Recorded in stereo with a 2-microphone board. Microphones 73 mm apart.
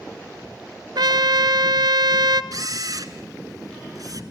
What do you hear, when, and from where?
0.9 s a trumpet: 70° right (ahead or behind), 0.7 m
2.5 s a camera shutter: 55° right (ahead or behind), 1.2 m